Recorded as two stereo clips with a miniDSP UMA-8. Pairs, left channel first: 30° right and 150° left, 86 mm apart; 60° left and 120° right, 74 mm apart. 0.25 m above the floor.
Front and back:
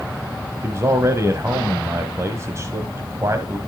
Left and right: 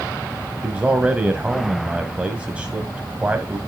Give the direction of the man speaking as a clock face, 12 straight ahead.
6 o'clock.